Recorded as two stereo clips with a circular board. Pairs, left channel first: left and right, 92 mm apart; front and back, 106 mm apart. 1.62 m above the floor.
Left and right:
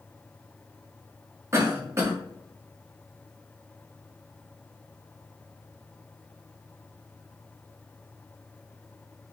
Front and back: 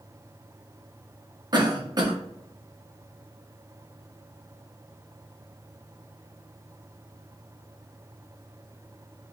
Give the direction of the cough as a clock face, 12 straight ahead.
5 o'clock.